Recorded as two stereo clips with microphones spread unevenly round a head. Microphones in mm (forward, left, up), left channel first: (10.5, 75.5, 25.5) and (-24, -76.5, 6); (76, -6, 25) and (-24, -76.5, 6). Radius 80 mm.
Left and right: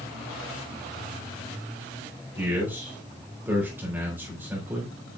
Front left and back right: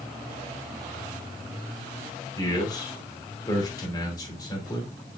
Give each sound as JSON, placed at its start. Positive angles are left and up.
{"t": 2.4, "sound": "a man speaking", "azimuth_deg": -25, "distance_m": 3.5}